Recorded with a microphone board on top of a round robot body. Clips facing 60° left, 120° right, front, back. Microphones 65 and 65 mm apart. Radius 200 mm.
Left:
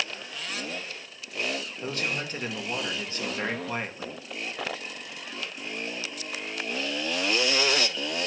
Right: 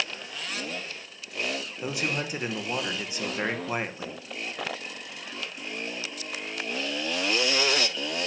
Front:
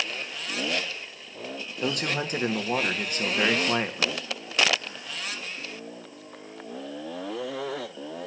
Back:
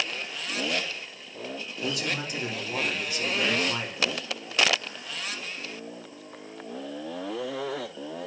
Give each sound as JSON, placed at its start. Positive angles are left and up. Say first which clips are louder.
{"t": 1.8, "sound": "a man speaking", "louder": "right 2 dB, front 3 dB", "azimuth_deg": -45, "distance_m": 1.6}